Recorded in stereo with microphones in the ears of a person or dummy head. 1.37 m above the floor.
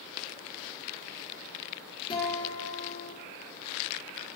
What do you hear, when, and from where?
2.1 s a guitar: 30° left (ahead or behind), 3 m